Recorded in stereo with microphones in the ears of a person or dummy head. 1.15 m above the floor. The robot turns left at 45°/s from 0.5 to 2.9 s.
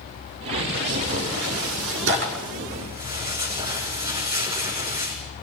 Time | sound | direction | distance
0.7 | tearing paper | 55° right (ahead or behind) | 6.5 m